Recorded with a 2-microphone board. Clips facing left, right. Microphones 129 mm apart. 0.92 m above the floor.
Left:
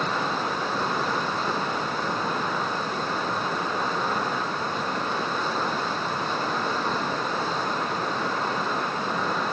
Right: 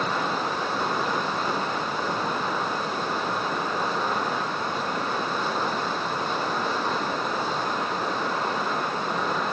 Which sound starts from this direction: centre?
Running water, at 0.0 s.